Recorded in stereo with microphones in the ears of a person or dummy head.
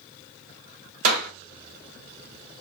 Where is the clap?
50° right (ahead or behind), 3 m.